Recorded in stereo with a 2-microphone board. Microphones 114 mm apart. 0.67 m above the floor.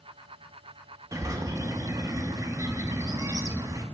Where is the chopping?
No chopping in this recording.